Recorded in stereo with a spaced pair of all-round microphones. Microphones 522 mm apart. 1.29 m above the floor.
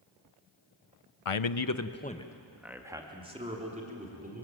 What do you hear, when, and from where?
1.2 s a man speaking: 80° left, 0.8 m; by 4.5 s 15° right (ahead or behind), 4 m